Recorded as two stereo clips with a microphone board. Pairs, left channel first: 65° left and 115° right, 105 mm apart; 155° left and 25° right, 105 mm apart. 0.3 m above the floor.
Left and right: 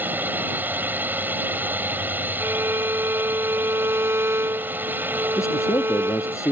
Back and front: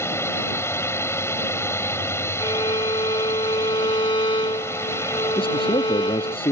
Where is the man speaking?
130° left.